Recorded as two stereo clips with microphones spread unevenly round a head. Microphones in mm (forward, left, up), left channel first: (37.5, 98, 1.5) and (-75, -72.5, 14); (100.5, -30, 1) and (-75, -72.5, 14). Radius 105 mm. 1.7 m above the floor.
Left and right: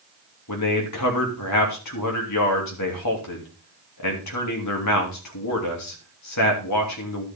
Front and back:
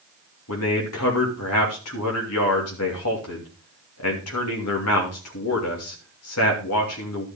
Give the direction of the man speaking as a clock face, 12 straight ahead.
11 o'clock.